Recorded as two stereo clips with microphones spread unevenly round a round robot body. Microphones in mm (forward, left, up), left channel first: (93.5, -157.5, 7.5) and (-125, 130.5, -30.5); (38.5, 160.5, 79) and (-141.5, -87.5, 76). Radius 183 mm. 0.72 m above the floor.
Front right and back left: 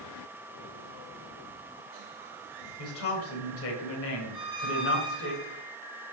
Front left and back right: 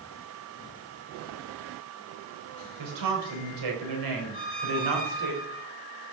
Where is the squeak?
110° right, 6.5 m.